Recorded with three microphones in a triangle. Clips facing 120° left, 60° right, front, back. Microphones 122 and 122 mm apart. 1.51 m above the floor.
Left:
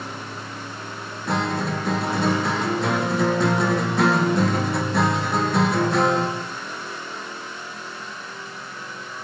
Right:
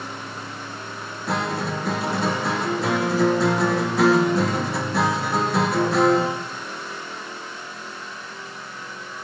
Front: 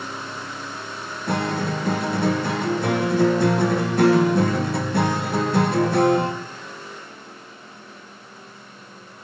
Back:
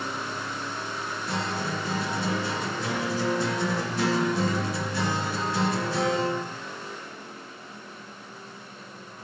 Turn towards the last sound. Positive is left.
turn(degrees=30)